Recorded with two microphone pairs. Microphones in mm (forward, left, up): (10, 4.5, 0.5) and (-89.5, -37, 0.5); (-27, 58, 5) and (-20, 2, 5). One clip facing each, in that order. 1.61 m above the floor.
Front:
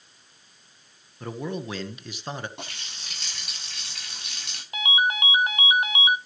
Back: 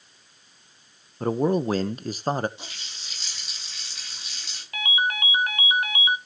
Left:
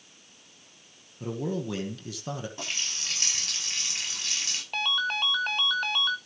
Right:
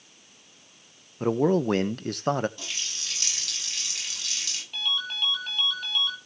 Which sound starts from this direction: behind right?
A man speaking, at 1.2 s.